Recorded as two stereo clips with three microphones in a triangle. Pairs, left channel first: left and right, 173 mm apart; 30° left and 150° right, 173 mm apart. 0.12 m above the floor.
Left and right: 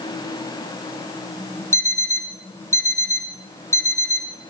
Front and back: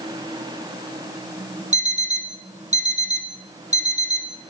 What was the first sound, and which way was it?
An alarm clock, 165° left.